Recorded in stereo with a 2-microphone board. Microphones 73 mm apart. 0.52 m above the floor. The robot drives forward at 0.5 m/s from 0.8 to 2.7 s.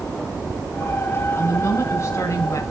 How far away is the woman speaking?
About 2.5 m.